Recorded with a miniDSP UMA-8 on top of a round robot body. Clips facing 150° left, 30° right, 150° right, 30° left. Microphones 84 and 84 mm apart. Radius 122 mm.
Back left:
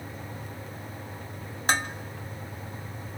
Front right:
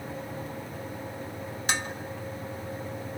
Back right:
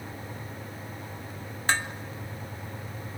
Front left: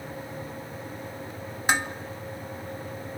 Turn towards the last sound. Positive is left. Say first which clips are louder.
# back left 5 dB, front left 2 dB
turn(degrees=105)